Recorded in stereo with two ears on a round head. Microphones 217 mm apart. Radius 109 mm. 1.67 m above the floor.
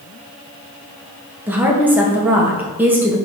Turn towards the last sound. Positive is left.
turn(degrees=-10)  # may be behind; listen again after turning